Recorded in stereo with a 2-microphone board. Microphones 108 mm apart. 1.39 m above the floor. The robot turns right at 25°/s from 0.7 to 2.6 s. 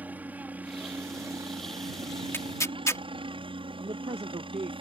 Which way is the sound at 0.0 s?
165° right.